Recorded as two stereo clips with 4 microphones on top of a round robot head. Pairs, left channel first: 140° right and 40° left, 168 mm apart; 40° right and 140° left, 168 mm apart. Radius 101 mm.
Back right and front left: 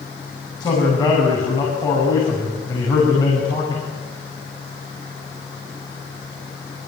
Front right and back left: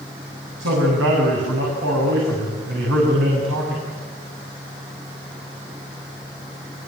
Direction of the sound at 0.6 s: 150° left.